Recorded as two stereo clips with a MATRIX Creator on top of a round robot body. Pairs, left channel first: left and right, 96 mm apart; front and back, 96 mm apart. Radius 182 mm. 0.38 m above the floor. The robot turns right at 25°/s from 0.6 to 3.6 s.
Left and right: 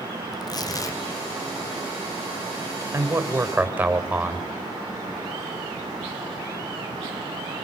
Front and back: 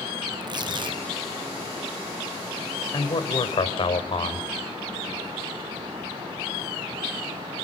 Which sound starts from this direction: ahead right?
A man speaking, at 2.9 s.